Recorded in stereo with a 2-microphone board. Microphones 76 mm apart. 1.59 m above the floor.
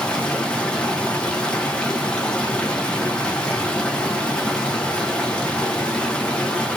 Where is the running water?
10° left (ahead or behind), 0.8 m.